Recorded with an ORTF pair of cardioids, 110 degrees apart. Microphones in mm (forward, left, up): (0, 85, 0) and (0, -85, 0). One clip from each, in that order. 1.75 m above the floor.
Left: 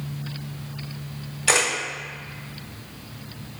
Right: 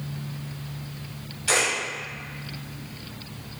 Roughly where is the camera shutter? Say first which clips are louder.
Left 2 dB; ahead left.